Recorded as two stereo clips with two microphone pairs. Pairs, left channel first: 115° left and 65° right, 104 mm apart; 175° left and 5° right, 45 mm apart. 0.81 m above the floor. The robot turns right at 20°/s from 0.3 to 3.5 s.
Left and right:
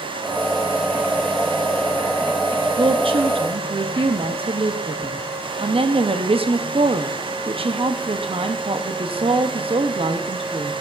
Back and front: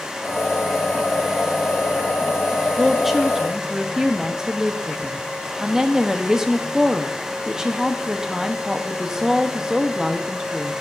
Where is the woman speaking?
95° right, 0.7 m; by 10.7 s 80° right, 0.7 m.